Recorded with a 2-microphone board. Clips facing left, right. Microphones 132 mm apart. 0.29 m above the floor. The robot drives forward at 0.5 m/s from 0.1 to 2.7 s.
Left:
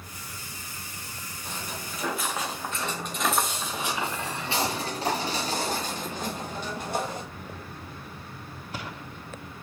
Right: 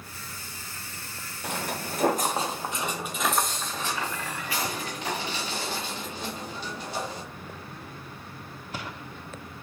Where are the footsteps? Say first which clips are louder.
Right 6 dB; 75° right (ahead or behind), 1.0 m; by 7.2 s 50° left (ahead or behind), 3 m.